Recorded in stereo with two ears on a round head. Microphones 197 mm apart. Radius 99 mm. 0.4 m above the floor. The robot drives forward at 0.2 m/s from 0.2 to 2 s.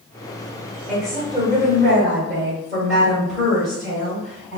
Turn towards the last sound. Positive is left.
turn(degrees=0)  # may be behind; listen again after turning